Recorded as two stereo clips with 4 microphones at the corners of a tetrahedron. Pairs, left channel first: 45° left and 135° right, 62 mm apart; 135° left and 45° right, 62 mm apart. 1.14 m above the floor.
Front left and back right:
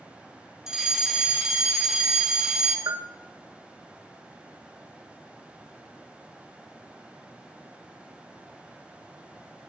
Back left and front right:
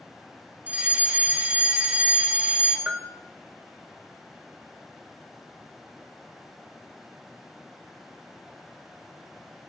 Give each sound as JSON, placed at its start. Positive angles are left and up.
{"t": 0.7, "sound": "a fire alarm", "azimuth_deg": -60, "distance_m": 1.1}
{"t": 2.9, "sound": "a bell", "azimuth_deg": -120, "distance_m": 0.8}